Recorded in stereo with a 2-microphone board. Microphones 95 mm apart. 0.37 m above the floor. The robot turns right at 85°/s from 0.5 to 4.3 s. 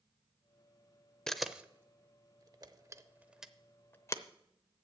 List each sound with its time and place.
1.3 s a camera shutter: 10° left (ahead or behind), 0.7 m; by 4.2 s 35° left (ahead or behind), 0.7 m